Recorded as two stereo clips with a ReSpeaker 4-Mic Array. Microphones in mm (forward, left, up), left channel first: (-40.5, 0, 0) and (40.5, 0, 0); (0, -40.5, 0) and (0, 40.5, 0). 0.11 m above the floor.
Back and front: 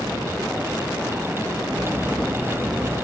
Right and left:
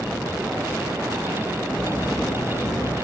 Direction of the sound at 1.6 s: 65° right.